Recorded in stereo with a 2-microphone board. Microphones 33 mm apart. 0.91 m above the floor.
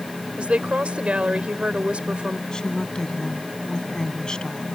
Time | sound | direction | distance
0.4 | a woman speaking | 40° right (ahead or behind) | ?
2.5 | a woman speaking | 25° left (ahead or behind) | ?